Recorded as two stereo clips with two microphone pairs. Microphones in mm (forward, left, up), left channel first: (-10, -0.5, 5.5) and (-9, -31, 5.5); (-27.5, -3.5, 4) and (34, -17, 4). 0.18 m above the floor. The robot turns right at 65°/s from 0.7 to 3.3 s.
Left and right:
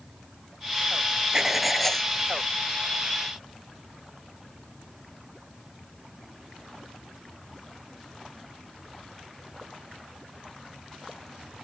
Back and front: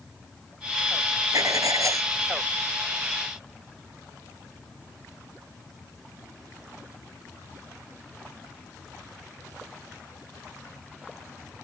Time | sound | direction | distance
1.3 | writing | 20° right | ?